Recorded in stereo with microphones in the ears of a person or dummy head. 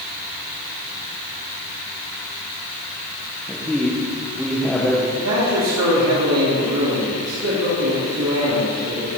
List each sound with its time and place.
3.5 s a man speaking: centre (ahead or behind), 1.2 m
5.2 s a man speaking: 75° right (ahead or behind), 2.5 m